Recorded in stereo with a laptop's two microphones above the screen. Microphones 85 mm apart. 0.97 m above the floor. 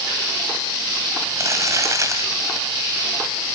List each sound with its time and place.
1.4 s crumpling: 40° right (ahead or behind), 3 m